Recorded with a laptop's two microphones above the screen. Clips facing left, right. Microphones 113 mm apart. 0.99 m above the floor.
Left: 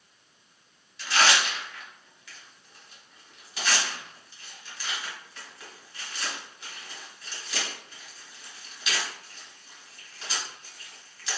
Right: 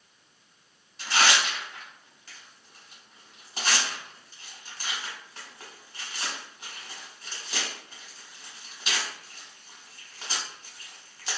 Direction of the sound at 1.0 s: 40° right (ahead or behind).